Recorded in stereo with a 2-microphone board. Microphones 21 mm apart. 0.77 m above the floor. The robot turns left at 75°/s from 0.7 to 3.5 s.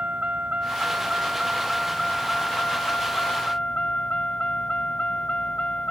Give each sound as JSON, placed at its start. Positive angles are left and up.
{"t": 0.0, "sound": "a vehicle", "azimuth_deg": -90}